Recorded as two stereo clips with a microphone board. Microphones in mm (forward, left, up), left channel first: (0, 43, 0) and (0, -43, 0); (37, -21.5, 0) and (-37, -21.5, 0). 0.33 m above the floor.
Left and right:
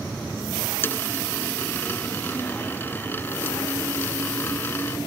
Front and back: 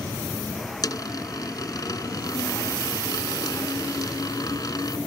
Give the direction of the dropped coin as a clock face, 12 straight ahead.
11 o'clock.